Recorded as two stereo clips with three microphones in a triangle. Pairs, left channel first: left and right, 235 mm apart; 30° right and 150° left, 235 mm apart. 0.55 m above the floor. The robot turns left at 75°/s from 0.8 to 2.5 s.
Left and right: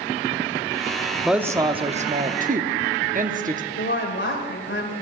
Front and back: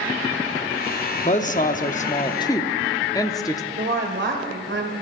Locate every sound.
1.2 s a woman speaking: straight ahead, 0.7 m; by 3.6 s 95° right, 0.7 m
3.8 s a woman speaking: 120° left, 2.5 m